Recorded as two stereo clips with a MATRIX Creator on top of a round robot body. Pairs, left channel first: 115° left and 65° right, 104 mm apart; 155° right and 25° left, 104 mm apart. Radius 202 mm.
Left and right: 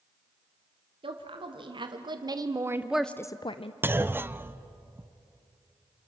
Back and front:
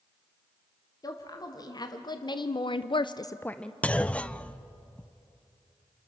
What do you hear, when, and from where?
1.0 s a woman speaking: 100° right, 2.5 m; by 3.7 s 120° left, 1.0 m
3.8 s a clunk: 95° right, 0.9 m